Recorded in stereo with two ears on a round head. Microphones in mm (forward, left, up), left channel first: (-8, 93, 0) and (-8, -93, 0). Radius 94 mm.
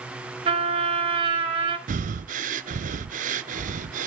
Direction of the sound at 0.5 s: 25° right (ahead or behind).